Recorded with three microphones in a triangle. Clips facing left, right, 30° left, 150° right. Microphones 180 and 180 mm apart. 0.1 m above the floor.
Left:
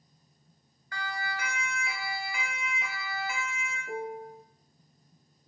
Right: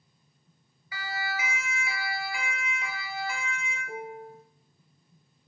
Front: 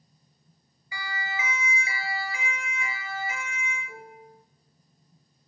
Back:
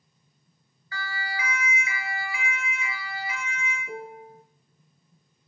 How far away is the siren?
About 2 m.